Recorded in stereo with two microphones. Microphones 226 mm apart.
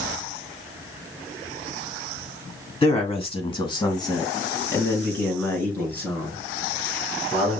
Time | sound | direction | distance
2.8 | a man speaking | 25° left (ahead or behind) | 1.1 m